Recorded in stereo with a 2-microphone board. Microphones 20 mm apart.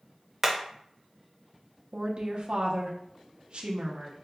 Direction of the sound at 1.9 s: 60° right (ahead or behind).